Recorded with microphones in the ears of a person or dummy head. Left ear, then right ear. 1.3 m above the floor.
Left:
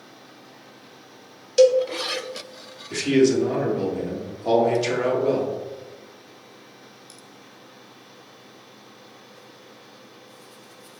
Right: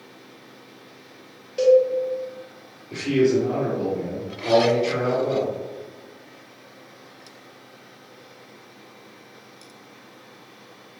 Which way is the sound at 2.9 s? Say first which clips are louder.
Left 1 dB; 65° left (ahead or behind).